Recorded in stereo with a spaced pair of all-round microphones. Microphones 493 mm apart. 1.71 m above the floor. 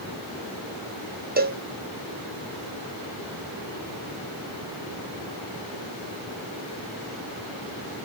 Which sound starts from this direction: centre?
A cowbell, at 1.4 s.